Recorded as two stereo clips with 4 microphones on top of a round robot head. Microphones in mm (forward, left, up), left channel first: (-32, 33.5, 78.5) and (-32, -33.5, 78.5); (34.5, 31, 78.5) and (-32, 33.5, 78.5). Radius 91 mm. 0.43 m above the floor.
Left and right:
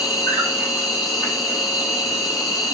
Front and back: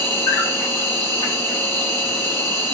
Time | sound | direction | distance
0.0 | an insect | 45° left | 8 m